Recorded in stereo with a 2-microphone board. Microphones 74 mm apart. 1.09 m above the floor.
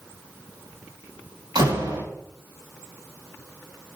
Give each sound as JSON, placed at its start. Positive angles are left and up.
{"t": 1.6, "sound": "a door slam", "side_deg": -85, "distance_m": 6.0}